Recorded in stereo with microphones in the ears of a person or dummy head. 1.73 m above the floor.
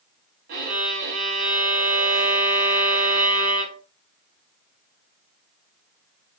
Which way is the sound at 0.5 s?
55° right (ahead or behind).